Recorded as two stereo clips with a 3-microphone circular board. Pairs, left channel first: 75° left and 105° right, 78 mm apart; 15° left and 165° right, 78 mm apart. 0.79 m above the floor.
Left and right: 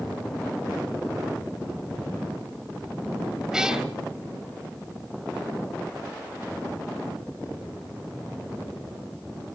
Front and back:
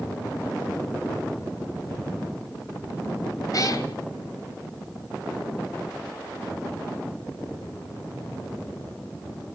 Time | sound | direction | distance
3.5 | a cat meowing | 25° right | 2 m